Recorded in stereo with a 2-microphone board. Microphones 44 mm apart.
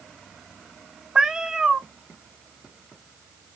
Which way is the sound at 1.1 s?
15° right (ahead or behind).